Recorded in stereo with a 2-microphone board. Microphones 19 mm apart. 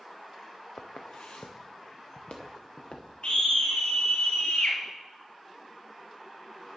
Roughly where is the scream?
Left.